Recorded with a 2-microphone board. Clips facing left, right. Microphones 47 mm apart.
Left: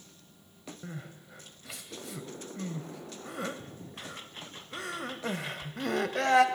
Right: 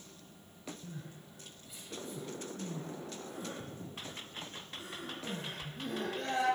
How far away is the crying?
About 1.9 m.